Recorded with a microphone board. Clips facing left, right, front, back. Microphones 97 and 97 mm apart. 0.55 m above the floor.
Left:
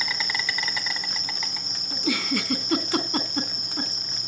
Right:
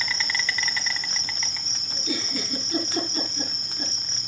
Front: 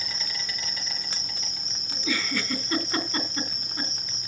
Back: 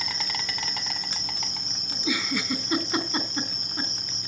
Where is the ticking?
I don't hear ticking.